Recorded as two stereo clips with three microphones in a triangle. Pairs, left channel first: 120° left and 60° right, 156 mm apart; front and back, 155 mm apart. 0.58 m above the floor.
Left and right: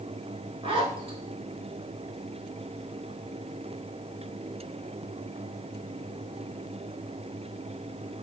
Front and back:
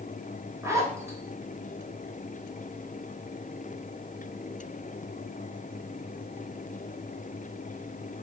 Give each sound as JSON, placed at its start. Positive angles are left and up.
{"t": 0.6, "sound": "a zipper", "azimuth_deg": -110, "distance_m": 1.1}